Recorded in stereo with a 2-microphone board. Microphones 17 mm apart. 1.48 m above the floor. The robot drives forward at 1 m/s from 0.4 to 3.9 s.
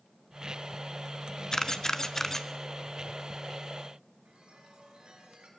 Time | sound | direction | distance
1.5 | a camera shutter | 40° left (ahead or behind) | 1.0 m
4.2 | a chime | 70° right (ahead or behind) | 5.5 m